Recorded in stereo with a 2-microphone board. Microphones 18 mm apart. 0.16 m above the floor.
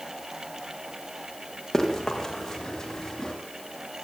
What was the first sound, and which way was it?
Running footsteps, 20° left (ahead or behind).